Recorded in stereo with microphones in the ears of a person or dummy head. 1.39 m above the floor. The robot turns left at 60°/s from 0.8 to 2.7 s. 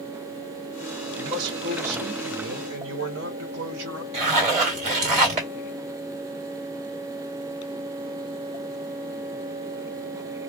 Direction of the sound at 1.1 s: 10° right.